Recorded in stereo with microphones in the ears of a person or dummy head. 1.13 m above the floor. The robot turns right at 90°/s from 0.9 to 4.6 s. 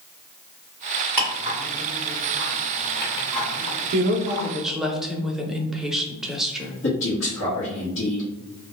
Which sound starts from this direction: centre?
Ticking, at 1.2 s.